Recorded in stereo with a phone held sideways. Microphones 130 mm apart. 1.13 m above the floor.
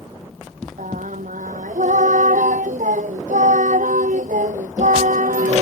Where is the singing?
85° right.